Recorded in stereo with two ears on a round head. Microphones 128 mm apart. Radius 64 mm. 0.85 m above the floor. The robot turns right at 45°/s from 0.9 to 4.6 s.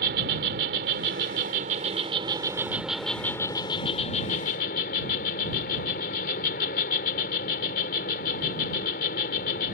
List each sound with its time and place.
0.0 s an insect: 95° right; by 9.7 s 75° left